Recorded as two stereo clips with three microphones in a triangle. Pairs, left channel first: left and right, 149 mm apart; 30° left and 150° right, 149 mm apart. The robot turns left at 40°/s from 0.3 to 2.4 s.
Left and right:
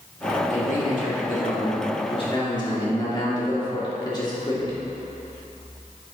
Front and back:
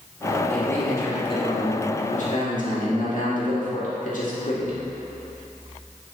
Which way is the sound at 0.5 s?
110° left.